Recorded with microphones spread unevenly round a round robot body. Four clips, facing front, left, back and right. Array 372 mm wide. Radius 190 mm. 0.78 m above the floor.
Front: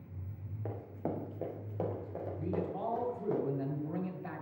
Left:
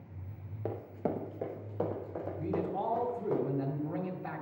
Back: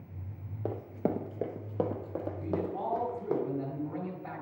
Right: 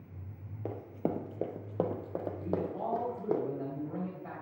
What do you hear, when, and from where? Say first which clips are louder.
0.7 s running footsteps: even, back 6 dB; 170° right, 0.8 m; by 3.4 s 135° right, 2.5 m
2.4 s a man speaking: left 3 dB, back 2 dB; 35° left, 2 m